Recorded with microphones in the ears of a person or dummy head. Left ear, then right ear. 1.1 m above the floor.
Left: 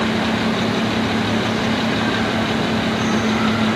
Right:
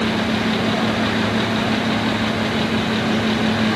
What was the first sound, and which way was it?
Only background noise.